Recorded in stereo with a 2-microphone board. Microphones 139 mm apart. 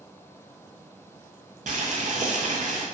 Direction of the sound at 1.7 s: 70° right (ahead or behind).